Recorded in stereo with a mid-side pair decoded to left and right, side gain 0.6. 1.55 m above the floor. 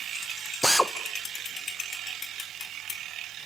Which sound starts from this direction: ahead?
A drill, at 0.6 s.